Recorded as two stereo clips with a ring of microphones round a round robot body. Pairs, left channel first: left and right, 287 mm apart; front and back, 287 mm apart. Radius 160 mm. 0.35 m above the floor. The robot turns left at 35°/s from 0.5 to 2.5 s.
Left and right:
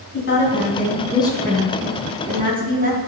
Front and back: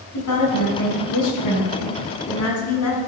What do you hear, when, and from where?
0.1 s a woman speaking: 40° left, 4.5 m; by 3.0 s 30° right, 4.5 m